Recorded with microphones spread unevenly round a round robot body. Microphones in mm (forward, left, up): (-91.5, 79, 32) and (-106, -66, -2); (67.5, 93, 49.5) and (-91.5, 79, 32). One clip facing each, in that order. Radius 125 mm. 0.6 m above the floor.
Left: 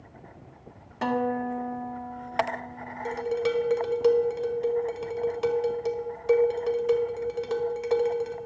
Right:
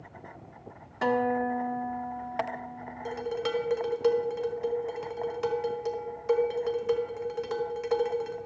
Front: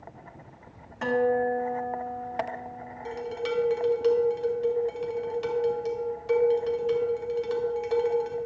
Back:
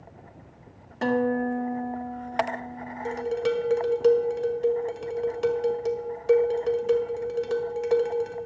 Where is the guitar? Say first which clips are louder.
Right 1 dB, even; 160° left, 1.7 m.